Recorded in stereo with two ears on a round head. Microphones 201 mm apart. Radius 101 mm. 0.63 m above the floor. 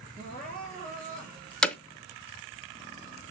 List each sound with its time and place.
0.2 s crying: 35° right (ahead or behind), 3 m
1.6 s hammering: 5° left (ahead or behind), 0.5 m